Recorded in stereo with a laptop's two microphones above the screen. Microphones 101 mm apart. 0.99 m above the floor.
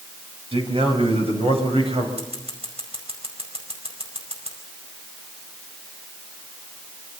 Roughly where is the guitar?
No guitar in this recording.